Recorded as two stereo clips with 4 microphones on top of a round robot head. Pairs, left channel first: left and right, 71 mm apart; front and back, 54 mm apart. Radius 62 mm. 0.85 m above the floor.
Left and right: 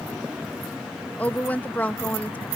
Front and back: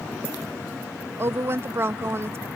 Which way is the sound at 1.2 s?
155° left.